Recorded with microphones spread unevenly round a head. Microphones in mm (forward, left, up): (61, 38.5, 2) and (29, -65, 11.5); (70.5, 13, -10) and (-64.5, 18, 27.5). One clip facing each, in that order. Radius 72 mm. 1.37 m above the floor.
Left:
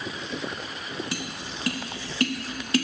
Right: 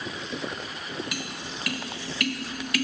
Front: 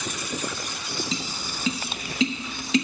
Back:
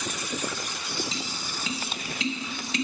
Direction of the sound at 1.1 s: 15° left.